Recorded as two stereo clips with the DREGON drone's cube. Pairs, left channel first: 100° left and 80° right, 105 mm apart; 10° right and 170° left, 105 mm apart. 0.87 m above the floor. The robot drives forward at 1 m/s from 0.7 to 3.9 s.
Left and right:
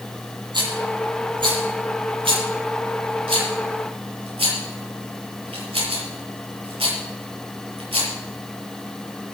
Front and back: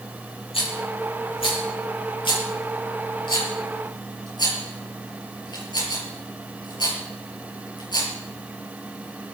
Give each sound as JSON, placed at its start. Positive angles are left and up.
{"t": 0.5, "sound": "a rattle", "azimuth_deg": -40, "distance_m": 9.0}